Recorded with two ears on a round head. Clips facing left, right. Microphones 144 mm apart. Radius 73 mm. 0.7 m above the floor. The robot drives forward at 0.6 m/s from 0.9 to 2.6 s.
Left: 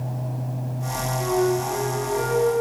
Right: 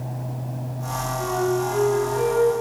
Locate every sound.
1.2 s a flute: centre (ahead or behind), 6 m